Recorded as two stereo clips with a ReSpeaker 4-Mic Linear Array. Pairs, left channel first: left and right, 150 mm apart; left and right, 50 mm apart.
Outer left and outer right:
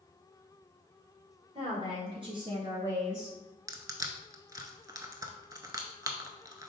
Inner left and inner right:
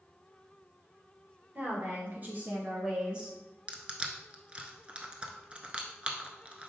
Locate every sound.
1.6 s a woman speaking: 35° right (ahead or behind), 2.0 m; by 3.4 s 5° right (ahead or behind), 1.4 m
3.7 s crushing: 25° right (ahead or behind), 0.6 m